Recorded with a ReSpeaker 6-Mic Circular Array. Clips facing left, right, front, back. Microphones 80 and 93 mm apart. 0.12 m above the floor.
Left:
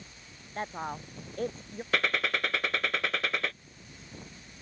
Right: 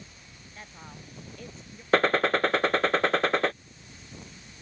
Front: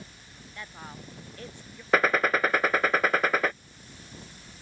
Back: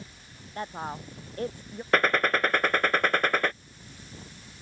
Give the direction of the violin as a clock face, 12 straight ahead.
No violin in this recording.